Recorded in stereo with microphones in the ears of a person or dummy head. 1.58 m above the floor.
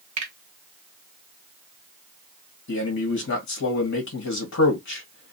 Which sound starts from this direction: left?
A man speaking, at 2.7 s.